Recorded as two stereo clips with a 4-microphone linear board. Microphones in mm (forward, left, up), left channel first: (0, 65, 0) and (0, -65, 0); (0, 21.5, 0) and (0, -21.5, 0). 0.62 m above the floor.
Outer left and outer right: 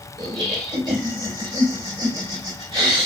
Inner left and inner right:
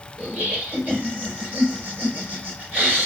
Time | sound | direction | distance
0.2 | laughter | 40° right (ahead or behind) | 2 m